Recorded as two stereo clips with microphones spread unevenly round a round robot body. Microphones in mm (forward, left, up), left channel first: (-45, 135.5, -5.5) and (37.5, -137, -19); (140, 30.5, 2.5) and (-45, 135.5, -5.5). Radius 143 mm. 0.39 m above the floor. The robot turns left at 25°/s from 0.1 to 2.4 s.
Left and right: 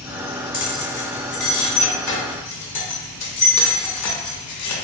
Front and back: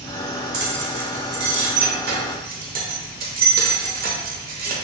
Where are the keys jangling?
165° left, 0.7 m; by 4.8 s 120° left, 0.7 m.